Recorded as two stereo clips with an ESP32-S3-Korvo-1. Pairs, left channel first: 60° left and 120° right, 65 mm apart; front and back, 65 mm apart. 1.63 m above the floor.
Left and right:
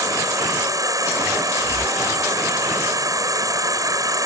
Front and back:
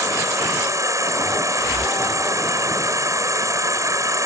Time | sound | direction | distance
0.0 | an insect | 145° right | ?